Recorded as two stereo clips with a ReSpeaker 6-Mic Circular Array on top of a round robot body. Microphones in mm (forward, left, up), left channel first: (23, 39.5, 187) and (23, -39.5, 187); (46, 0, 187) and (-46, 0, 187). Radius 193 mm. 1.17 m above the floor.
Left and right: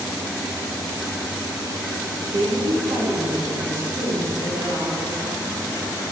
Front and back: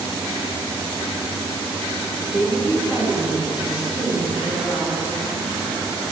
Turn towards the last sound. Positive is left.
turn(degrees=-125)